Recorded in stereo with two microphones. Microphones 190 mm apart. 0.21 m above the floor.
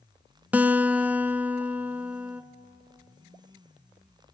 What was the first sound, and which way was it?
A guitar, 10° right (ahead or behind).